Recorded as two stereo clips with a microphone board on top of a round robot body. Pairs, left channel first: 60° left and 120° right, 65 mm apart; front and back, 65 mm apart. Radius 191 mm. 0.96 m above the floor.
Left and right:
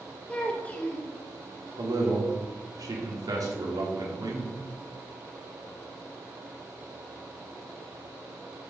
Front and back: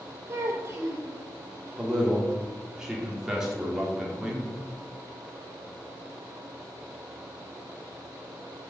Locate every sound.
0.3 s a child speaking: 130° left, 2.5 m
1.8 s a man speaking: 100° right, 4 m